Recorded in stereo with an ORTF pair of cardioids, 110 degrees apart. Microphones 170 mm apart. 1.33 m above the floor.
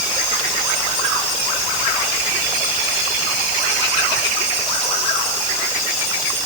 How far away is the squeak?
I don't hear a squeak.